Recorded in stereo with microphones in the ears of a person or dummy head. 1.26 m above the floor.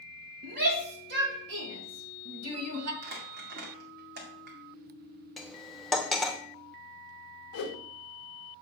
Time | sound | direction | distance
0.4 | a shout | 50° right (ahead or behind) | 2.0 m
3.0 | crumpling | 60° right (ahead or behind) | 1.9 m
5.4 | cutlery clinking | 5° left (ahead or behind) | 0.9 m
7.5 | a whoosh | 45° left (ahead or behind) | 1.0 m